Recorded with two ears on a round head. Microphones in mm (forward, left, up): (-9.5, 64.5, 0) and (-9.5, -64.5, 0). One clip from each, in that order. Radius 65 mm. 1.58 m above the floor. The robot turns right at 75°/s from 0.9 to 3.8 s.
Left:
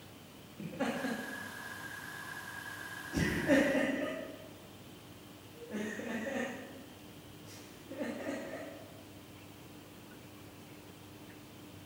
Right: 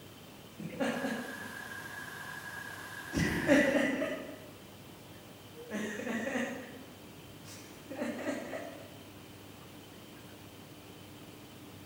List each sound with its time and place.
0.6 s laughter: 20° left (ahead or behind), 3 m; by 8.6 s 55° right (ahead or behind), 3 m